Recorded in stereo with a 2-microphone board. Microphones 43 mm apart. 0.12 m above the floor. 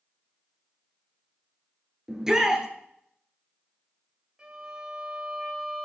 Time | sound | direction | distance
2.1 | a shout | 15° right (ahead or behind) | 2.5 m
4.4 | a violin | 20° right (ahead or behind) | 3 m